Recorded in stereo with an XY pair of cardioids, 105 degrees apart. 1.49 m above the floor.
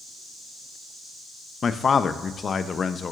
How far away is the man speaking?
About 0.7 m.